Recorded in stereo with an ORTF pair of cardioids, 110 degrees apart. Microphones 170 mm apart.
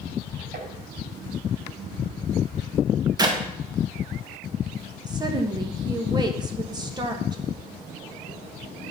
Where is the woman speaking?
25° right, 1.4 m.